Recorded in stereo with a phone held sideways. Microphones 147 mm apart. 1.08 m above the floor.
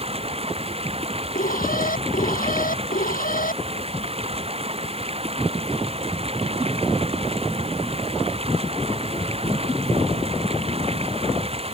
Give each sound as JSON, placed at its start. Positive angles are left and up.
{"t": 0.0, "sound": "running water", "side_deg": -45}
{"t": 1.4, "sound": "an alarm", "side_deg": 70}